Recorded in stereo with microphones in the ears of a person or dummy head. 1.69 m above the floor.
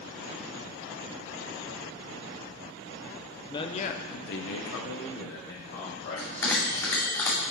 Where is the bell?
20° left (ahead or behind), 2 m.